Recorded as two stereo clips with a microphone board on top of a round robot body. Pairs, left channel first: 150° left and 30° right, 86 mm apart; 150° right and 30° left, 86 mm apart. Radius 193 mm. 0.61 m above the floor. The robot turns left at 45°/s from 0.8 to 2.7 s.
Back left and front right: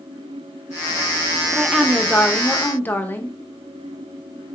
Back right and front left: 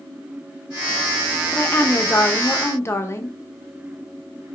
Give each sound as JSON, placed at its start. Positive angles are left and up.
{"t": 1.5, "sound": "a woman speaking", "azimuth_deg": -110, "distance_m": 0.6}